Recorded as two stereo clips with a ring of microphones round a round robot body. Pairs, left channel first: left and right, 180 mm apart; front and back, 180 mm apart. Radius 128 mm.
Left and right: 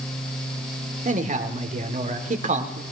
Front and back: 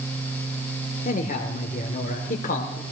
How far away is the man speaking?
About 2 m.